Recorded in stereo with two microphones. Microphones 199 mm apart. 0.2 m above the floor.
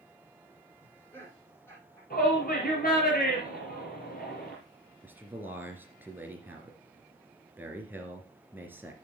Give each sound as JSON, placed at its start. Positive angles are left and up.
{"t": 0.8, "sound": "laughter", "side_deg": 15, "distance_m": 7.0}
{"t": 2.1, "sound": "a shout", "side_deg": 50, "distance_m": 5.0}
{"t": 5.0, "sound": "a man speaking", "side_deg": -10, "distance_m": 2.5}